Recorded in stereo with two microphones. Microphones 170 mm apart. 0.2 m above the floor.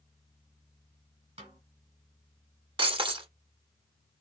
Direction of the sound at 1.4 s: 40° right (ahead or behind).